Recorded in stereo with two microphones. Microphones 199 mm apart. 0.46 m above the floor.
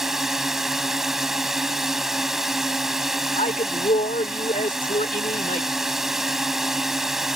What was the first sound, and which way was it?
A drone, centre (ahead or behind).